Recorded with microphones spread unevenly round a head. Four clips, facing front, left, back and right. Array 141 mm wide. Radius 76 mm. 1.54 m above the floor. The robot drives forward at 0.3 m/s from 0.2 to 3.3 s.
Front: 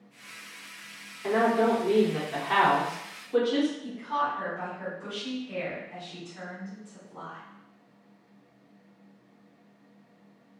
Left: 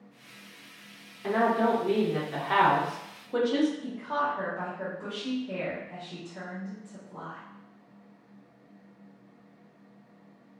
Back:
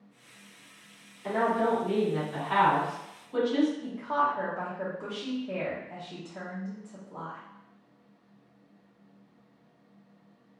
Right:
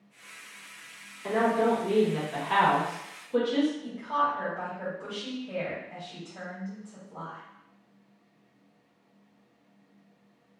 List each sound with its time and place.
1.2 s a woman speaking: 40° left, 1.6 m; by 3.7 s 60° left, 1.2 m
3.8 s a woman speaking: 175° right, 1.3 m